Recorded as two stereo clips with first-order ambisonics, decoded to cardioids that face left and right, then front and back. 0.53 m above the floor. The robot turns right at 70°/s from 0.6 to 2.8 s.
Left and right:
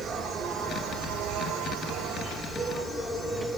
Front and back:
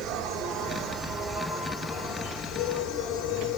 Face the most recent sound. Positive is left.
turn(degrees=15)